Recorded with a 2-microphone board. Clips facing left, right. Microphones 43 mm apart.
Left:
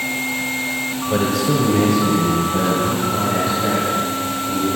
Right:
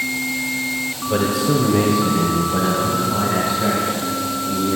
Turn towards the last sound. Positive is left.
turn(degrees=-25)  # may be behind; listen again after turning